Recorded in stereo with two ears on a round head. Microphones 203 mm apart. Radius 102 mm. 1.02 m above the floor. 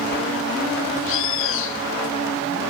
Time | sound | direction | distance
1.0 | a bird | 60° left (ahead or behind) | 2.5 m